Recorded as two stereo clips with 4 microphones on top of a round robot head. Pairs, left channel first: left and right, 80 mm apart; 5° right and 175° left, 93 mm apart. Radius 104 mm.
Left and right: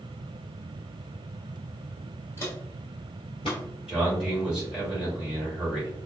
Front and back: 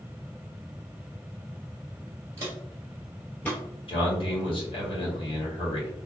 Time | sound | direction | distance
2.4 | footsteps | 130° left | 0.8 m
3.9 | a man speaking | 10° right | 1.9 m